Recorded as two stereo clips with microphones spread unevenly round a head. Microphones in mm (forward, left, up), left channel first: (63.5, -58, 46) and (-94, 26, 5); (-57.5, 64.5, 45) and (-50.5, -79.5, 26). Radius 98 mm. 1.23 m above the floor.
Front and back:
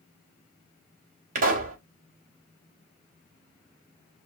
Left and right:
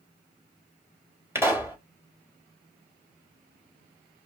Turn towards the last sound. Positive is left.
turn(degrees=-160)